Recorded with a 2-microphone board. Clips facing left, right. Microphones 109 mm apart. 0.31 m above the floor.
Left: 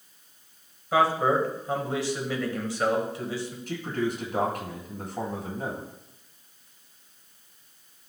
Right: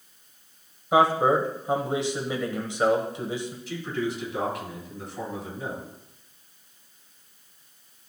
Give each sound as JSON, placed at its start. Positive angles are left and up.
{"t": 0.9, "sound": "a man speaking", "side_deg": -20, "distance_m": 1.3}
{"t": 3.7, "sound": "a man speaking", "side_deg": 50, "distance_m": 2.5}